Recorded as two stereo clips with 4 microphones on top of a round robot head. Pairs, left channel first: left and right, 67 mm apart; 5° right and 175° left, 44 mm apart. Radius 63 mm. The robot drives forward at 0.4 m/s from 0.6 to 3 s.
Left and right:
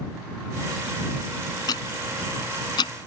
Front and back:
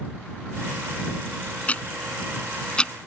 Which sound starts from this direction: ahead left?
Ticking, at 1.7 s.